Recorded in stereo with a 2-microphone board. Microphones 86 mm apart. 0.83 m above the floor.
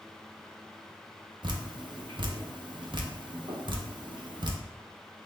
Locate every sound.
1.4 s dripping: 55° right (ahead or behind), 0.6 m